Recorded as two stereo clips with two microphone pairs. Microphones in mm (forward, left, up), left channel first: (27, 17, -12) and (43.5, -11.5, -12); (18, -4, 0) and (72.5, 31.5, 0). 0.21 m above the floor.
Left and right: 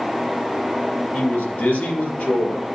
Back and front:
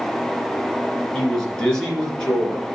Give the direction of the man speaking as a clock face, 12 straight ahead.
8 o'clock.